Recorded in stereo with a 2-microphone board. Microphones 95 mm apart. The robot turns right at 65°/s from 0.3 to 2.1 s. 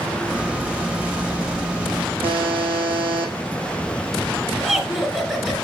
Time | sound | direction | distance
2.2 | a buzzer | 70° right (ahead or behind) | 5 m
4.6 | laughter | 5° right (ahead or behind) | 2.5 m